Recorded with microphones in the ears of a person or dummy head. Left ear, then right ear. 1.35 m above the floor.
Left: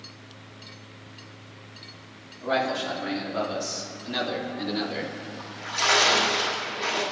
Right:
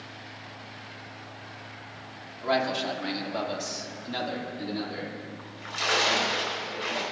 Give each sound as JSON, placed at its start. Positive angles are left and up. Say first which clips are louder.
{"t": 2.4, "sound": "a man speaking", "louder": "left 1 dB", "side_deg": -65, "distance_m": 3.0}
{"t": 5.4, "sound": "a splash", "louder": "left 5 dB", "side_deg": 0, "distance_m": 4.5}